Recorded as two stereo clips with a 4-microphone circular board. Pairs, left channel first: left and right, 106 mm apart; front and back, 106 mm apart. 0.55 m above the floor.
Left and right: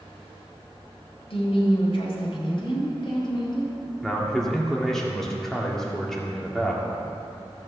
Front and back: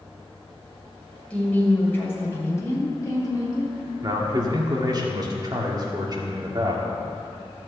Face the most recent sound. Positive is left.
turn(degrees=175)